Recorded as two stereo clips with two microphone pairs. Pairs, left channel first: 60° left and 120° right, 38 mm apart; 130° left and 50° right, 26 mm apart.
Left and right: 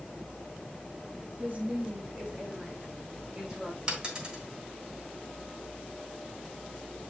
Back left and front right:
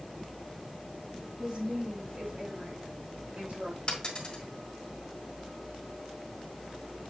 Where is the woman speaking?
85° right, 1.4 m; by 3.8 s 35° right, 3.5 m.